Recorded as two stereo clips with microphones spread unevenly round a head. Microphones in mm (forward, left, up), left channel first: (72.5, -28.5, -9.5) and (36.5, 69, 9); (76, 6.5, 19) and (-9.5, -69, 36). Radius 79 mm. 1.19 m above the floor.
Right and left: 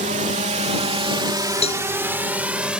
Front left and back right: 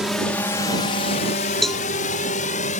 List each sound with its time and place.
0.0 s a drone: 135° left; by 2.8 s 30° left
1.6 s a cowbell: 50° right